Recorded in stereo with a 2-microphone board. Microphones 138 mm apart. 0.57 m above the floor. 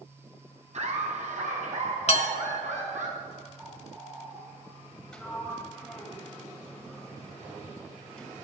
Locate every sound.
0.7 s laughter: 60° right (ahead or behind), 5 m; by 3.1 s 65° right (ahead or behind), 6 m
2.1 s dishes clattering: 55° left (ahead or behind), 1.5 m
3.6 s a bird: 15° right (ahead or behind), 3 m
5.1 s a sliding door: 5° left (ahead or behind), 2 m